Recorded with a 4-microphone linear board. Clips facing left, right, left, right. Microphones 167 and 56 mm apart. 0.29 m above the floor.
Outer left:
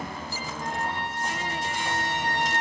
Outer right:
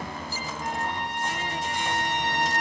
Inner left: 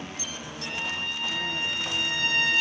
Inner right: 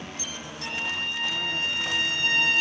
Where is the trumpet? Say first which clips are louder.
Even, inner right 2 dB; 20° right (ahead or behind), 4.5 m.